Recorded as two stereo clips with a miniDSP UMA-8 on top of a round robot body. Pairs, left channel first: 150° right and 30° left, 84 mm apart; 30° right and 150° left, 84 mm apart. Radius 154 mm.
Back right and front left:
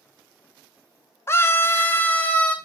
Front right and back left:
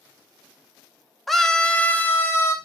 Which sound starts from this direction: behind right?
A scream, at 1.3 s.